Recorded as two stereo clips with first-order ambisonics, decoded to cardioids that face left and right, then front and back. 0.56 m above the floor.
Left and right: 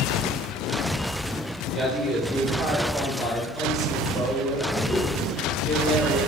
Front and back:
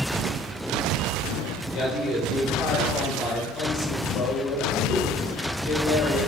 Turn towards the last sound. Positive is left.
turn(degrees=-10)